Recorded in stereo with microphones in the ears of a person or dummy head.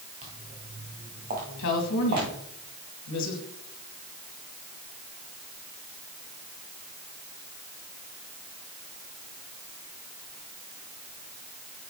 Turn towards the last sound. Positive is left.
turn(degrees=70)  # may be behind; listen again after turning